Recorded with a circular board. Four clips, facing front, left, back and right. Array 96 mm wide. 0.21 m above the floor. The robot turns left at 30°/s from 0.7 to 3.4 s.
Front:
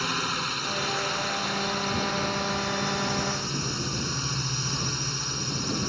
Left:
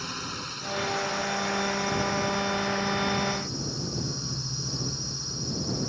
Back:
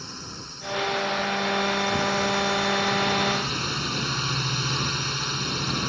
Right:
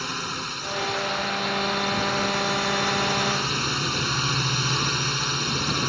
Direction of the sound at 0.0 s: 30° right.